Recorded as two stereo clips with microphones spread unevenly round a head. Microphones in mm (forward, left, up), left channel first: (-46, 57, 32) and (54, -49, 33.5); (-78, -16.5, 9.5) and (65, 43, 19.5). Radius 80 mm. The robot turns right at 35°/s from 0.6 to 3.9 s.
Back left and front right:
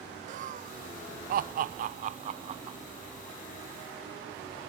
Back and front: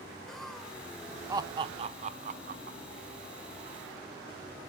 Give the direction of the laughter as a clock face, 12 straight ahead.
2 o'clock.